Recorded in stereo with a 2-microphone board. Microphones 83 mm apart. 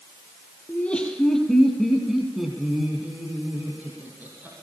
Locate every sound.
0.7 s laughter: 15° left (ahead or behind), 5 m; by 4.5 s 25° right (ahead or behind), 8 m